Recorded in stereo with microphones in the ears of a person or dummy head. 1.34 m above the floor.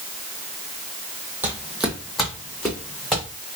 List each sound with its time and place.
1.4 s footsteps: 15° right (ahead or behind), 2 m; by 3.2 s 5° left (ahead or behind), 4 m